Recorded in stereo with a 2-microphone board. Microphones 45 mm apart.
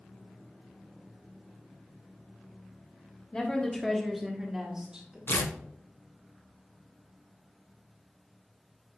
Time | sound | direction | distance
3.3 | a woman speaking | 20° left (ahead or behind) | 1.0 m
5.3 | tearing paper | 65° left (ahead or behind) | 0.7 m